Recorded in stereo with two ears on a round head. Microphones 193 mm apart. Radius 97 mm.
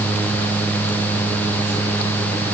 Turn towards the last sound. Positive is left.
No sound to turn to.